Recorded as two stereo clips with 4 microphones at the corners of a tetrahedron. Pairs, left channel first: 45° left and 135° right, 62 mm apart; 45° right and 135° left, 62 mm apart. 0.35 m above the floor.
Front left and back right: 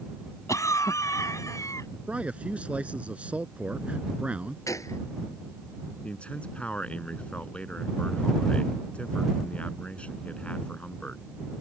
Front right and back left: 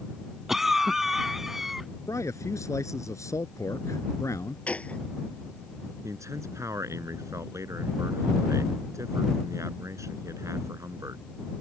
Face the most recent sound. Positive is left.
turn(degrees=115)